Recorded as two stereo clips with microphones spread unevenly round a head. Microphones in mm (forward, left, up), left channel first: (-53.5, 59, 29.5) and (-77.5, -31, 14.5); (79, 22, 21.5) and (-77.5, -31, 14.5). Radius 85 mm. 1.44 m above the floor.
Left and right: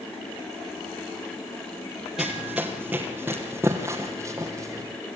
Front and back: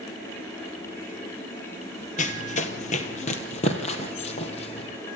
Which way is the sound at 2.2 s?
10° right.